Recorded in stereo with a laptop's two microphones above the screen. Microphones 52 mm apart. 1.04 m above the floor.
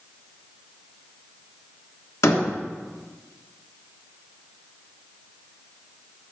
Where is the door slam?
60° left (ahead or behind), 1.3 m.